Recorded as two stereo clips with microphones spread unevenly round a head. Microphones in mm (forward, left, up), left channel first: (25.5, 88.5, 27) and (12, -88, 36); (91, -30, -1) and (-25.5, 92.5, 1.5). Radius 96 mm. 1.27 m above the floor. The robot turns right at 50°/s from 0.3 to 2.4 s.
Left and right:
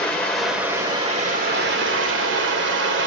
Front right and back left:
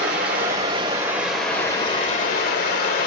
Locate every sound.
0.0 s running water: 170° left, 1.8 m; by 3.1 s 85° right, 1.8 m